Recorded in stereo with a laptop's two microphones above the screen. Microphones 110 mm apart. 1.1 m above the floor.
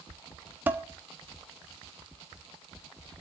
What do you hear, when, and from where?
0.7 s dishes clattering: 15° right (ahead or behind), 1.3 m